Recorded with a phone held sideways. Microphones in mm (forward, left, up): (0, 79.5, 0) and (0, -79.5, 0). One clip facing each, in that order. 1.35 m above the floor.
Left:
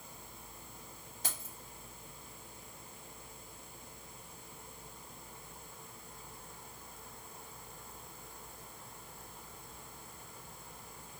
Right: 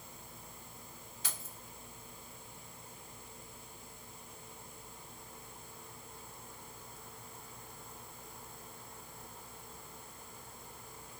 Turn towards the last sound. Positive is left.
turn(degrees=45)  # may be behind; listen again after turning